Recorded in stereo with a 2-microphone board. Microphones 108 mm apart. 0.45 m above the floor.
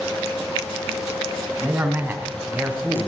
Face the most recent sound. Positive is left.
turn(degrees=-15)  # may be behind; listen again after turning